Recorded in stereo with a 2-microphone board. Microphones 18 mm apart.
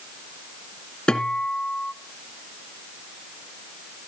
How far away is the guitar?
About 1.8 m.